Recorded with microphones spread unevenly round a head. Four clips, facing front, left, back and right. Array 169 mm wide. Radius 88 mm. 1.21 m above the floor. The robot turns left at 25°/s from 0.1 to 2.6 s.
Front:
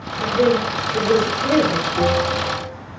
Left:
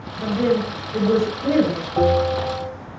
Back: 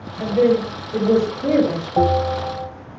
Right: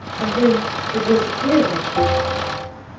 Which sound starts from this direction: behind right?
A woman speaking, at 0.2 s.